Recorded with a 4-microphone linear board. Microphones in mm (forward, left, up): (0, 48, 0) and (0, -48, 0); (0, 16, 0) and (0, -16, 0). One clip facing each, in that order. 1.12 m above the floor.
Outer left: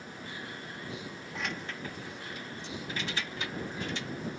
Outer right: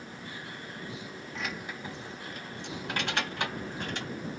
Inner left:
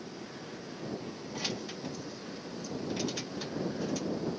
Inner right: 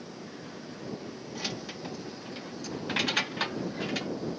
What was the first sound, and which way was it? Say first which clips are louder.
Keys jangling: even, even; centre (ahead or behind).